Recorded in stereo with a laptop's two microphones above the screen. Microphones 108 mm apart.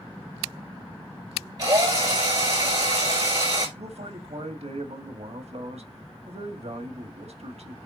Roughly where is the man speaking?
Right.